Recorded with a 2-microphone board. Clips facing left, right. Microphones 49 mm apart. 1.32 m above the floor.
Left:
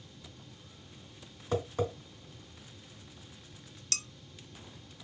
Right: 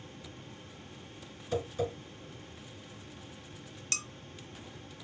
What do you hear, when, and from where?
1.5 s tapping: 65° left (ahead or behind), 2.5 m
3.9 s dishes clattering: 25° right (ahead or behind), 0.6 m